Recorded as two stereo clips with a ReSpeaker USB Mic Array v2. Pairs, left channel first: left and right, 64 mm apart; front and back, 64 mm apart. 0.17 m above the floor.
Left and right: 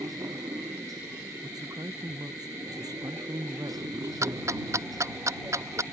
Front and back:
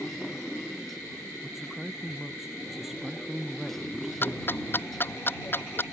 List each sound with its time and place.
0.0 s a motorcycle: 85° right
1.4 s a man speaking: 95° right
4.2 s ticking: 55° right